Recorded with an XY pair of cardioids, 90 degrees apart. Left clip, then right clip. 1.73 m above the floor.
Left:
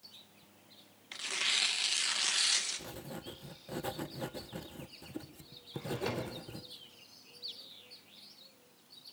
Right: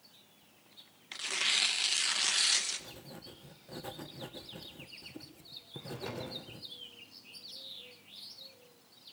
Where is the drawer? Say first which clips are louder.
Left 5 dB; 45° left, 4.5 m.